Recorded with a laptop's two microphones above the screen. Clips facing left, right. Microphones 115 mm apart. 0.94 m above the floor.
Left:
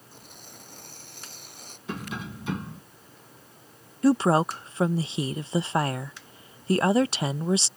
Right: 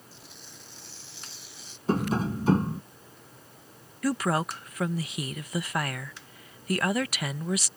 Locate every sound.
0.1 s tearing paper: 50° left (ahead or behind)
1.9 s tapping: 40° right (ahead or behind)
4.0 s a woman speaking: 25° left (ahead or behind)